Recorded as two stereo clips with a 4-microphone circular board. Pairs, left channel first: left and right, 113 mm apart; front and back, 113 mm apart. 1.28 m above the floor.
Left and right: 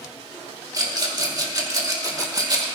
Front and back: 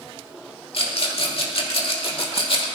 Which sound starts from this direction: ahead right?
A rattle, at 0.7 s.